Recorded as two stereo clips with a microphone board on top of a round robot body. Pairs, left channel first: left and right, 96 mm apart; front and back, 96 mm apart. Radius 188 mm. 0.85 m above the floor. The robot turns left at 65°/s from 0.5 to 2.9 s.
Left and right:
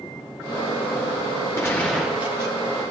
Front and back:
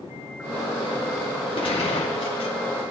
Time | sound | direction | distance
1.6 | a gunshot | 30° left | 0.8 m